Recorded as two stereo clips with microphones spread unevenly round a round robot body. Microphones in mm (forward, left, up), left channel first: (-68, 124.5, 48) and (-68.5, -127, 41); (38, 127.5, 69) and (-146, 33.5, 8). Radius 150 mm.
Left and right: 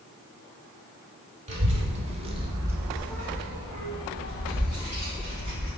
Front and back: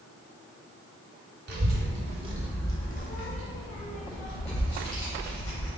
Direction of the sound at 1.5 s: 150° right.